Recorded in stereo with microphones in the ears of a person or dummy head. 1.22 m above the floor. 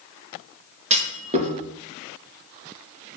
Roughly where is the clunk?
Right.